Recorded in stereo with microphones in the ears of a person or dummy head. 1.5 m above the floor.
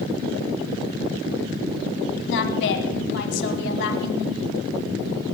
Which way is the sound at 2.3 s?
70° left (ahead or behind).